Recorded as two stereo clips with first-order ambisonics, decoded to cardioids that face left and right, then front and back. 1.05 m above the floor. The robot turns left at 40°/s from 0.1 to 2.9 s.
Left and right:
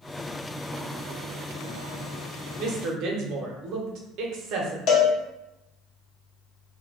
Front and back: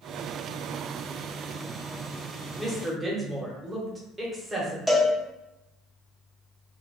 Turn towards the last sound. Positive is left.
turn(degrees=95)